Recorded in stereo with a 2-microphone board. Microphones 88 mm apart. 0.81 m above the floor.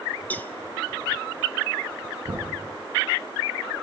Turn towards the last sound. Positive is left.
turn(degrees=-90)